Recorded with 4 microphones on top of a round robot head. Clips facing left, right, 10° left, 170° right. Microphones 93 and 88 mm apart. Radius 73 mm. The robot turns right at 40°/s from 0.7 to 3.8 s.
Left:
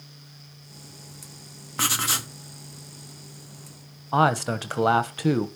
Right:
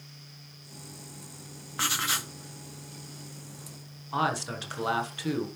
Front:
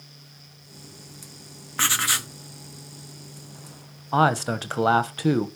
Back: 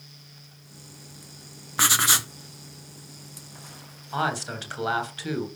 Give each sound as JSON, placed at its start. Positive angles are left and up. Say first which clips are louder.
{"t": 1.8, "sound": "writing", "louder": "left 3 dB, back 2 dB", "azimuth_deg": 125, "distance_m": 0.5}
{"t": 4.1, "sound": "a man speaking", "louder": "left 8 dB, front 7 dB", "azimuth_deg": 50, "distance_m": 1.1}